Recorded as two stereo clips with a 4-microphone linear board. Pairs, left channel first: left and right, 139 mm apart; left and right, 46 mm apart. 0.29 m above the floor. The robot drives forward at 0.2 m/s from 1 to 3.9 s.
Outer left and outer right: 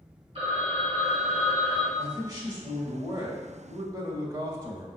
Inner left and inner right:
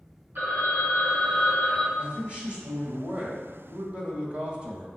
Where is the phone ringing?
50° right (ahead or behind), 1.4 m.